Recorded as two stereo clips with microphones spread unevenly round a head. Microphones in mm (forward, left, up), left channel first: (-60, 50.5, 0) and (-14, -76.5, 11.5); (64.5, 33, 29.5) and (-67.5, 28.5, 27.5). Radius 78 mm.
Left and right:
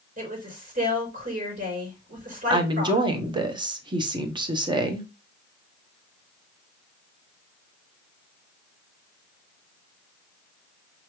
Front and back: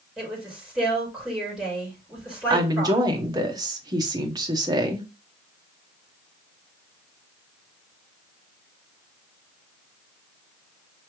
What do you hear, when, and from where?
0.2 s a woman speaking: 90° right, 4 m
2.5 s a woman speaking: 120° right, 1.0 m